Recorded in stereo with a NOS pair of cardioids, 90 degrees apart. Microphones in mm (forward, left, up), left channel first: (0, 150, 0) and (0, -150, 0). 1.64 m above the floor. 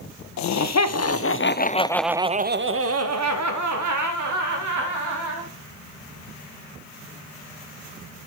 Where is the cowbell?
No cowbell in this recording.